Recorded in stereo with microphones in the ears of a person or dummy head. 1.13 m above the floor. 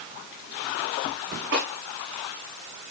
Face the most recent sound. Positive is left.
turn(degrees=-65)  # may be behind; listen again after turning